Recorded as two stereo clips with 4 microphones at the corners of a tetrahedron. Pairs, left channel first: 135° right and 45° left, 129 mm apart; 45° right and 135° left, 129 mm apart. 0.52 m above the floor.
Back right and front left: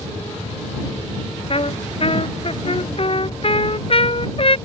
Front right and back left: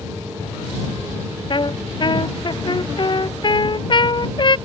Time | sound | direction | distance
1.5 | a trumpet | 95° right | ?